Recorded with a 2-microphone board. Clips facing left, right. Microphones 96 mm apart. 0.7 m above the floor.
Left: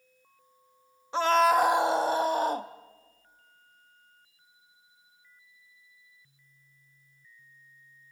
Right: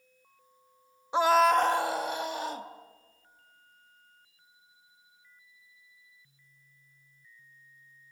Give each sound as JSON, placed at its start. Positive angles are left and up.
{"t": 1.1, "sound": "a scream", "side_deg": -15, "distance_m": 0.6}